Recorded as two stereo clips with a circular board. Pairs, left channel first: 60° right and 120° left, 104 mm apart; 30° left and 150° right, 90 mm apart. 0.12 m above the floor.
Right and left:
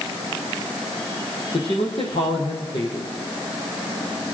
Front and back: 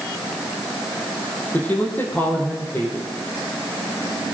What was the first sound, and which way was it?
A man speaking, 40° right.